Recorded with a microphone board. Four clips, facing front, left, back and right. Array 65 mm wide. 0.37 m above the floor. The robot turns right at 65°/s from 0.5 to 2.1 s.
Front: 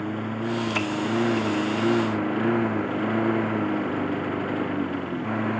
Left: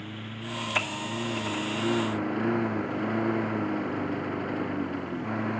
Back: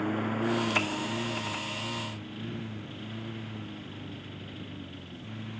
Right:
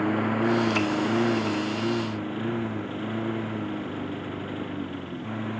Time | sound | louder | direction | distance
0.0 | a lawn mower | right 15 dB, front 1 dB | 90° right | ?